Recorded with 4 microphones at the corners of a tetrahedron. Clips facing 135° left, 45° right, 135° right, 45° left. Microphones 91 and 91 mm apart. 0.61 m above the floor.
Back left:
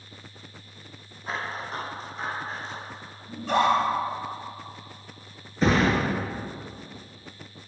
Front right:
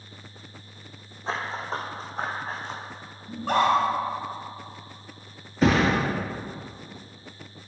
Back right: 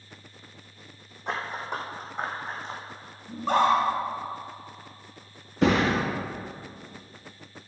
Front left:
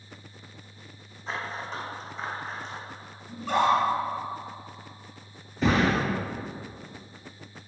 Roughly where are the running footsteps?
Right.